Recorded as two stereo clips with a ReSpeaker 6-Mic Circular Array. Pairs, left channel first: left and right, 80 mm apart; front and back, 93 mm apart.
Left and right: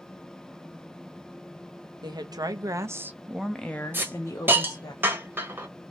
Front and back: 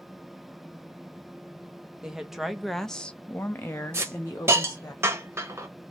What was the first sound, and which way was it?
A woman speaking, 95° right.